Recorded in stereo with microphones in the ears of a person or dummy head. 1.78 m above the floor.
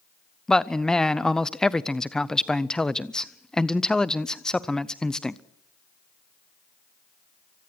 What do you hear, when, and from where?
0.5 s a man speaking: 5° left (ahead or behind), 0.6 m